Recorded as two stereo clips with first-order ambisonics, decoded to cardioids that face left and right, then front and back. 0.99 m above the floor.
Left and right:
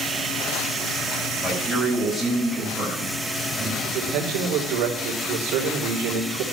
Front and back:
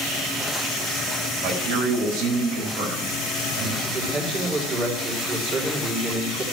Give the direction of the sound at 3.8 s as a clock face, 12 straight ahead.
4 o'clock.